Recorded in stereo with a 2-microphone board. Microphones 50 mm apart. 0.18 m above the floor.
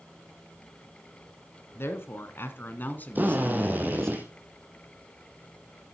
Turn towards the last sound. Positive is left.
turn(degrees=-35)  # may be behind; listen again after turning